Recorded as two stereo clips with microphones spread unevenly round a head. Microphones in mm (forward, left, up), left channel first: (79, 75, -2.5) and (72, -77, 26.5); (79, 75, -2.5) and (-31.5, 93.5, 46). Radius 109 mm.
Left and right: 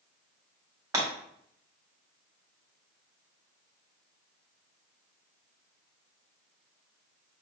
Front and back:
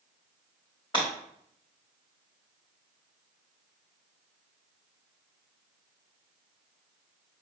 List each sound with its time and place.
0.9 s breaking glass: 80° right, 1.2 m